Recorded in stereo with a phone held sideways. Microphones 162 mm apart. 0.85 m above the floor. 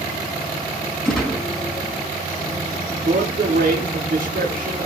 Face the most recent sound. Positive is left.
turn(degrees=-70)  # may be behind; listen again after turning